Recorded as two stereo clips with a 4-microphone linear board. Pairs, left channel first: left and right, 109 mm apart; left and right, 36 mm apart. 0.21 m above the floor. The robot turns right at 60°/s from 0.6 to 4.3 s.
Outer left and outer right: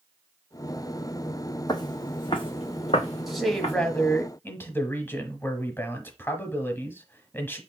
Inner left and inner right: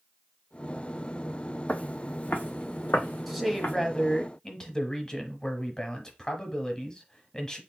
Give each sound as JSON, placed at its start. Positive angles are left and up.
{"t": 1.7, "sound": "footsteps", "side_deg": 40, "distance_m": 0.6}
{"t": 3.3, "sound": "a man speaking", "side_deg": -5, "distance_m": 1.0}